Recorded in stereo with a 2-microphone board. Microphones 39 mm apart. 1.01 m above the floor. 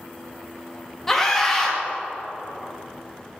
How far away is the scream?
About 1.7 m.